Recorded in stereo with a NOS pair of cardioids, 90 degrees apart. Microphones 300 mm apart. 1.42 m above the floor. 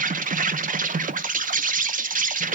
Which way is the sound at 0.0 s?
25° right.